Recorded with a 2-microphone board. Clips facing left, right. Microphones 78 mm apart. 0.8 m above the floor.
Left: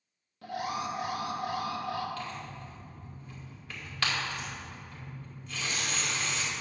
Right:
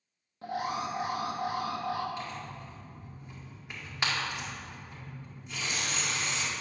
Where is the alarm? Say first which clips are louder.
Right 1 dB; 25° right (ahead or behind), 0.9 m.